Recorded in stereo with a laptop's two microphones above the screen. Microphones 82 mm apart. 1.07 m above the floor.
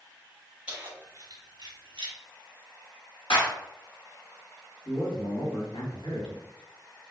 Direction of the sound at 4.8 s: 70° left (ahead or behind).